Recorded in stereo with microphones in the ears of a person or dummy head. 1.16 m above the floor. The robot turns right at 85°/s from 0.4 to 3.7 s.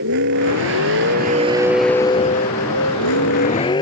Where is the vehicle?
120° right; by 3.8 s 160° left.